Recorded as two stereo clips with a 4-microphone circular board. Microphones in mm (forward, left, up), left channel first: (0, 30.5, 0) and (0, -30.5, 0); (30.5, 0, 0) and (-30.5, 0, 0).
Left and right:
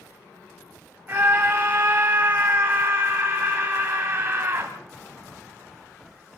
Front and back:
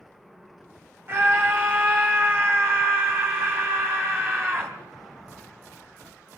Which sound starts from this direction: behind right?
A scream, at 1.1 s.